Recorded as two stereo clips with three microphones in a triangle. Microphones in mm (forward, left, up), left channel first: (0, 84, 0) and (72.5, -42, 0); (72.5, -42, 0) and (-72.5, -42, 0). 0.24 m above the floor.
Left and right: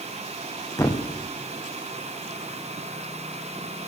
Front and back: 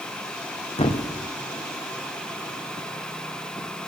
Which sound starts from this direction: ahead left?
A thud, at 0.8 s.